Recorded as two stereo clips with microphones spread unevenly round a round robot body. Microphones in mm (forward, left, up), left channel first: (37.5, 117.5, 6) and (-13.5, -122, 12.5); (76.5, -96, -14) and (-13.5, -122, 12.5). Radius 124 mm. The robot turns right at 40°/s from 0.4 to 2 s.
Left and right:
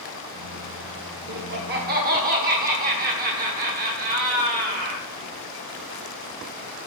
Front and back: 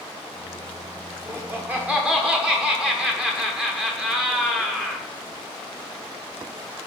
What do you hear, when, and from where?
1.3 s laughter: 95° right, 1.0 m; by 5.1 s 65° right, 1.0 m